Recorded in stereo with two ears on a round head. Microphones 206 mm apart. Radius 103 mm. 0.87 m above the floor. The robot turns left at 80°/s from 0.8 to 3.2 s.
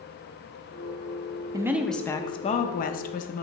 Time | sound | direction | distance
1.5 | a woman speaking | 155° right | 0.6 m